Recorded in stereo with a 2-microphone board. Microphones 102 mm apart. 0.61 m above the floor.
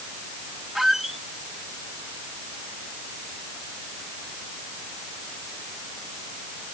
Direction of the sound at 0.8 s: Centre (ahead or behind).